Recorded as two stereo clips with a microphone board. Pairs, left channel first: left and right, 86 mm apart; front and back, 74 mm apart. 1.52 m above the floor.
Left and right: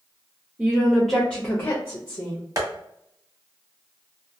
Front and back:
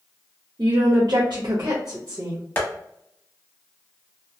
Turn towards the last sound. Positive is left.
turn(degrees=-55)